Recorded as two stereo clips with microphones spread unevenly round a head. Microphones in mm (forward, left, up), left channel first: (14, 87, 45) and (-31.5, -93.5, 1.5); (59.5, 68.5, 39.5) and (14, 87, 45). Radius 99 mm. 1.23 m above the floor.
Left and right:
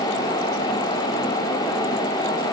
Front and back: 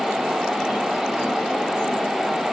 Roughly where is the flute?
No flute in this recording.